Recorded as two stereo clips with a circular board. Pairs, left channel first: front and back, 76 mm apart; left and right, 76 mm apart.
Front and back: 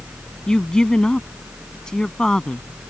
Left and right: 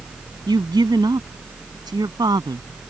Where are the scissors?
I don't hear scissors.